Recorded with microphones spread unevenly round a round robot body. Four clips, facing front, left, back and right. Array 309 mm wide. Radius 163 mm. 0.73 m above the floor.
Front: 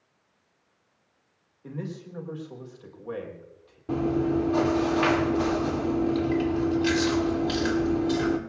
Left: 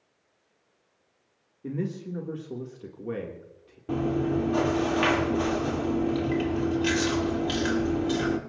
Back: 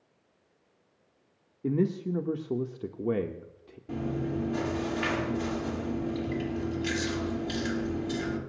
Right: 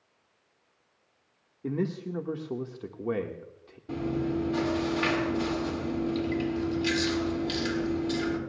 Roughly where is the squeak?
I don't hear a squeak.